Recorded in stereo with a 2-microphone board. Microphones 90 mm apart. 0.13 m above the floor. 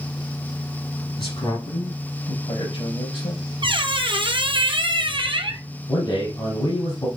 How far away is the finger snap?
No finger snap in this recording.